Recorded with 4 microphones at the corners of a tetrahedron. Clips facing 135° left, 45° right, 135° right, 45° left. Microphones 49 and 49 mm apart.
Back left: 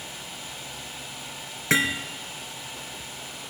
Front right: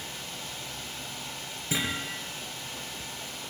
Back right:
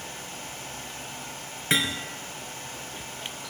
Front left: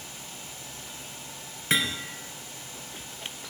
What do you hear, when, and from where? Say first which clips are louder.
1.7 s hammering: back left 8 dB, back right 1 dB; 140° left, 3 m